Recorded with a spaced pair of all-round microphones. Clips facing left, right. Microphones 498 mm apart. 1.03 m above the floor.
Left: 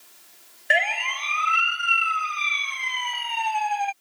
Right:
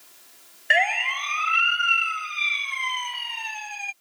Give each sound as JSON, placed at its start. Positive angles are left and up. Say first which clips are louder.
{"t": 0.7, "sound": "a siren", "louder": "right 1 dB", "side_deg": 55}